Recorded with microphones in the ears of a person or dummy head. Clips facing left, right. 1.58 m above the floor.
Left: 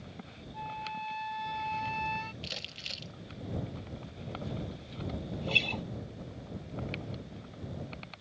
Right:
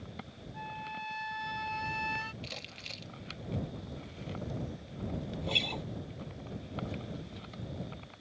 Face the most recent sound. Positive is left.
turn(degrees=5)  # may be behind; listen again after turning